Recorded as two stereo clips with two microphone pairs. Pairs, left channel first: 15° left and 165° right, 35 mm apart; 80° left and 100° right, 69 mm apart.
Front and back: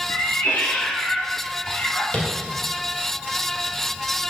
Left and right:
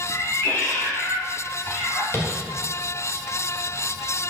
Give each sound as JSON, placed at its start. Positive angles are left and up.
{"t": 0.1, "sound": "a cat meowing", "azimuth_deg": 25, "distance_m": 1.8}
{"t": 2.1, "sound": "tapping", "azimuth_deg": 50, "distance_m": 1.7}